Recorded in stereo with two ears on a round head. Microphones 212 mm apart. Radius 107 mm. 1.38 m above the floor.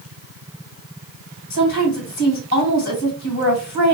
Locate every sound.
1.5 s a woman speaking: 40° left (ahead or behind), 2.5 m